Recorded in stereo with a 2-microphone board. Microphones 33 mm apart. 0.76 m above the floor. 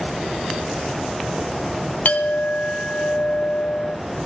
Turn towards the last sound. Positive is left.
turn(degrees=60)  # may be behind; listen again after turning